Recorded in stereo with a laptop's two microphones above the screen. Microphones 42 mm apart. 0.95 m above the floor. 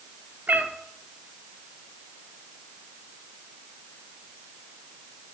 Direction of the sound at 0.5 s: 45° right (ahead or behind).